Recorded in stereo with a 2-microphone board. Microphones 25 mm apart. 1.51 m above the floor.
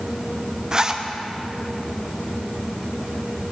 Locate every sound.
0.7 s a zipper: 30° right (ahead or behind), 1.0 m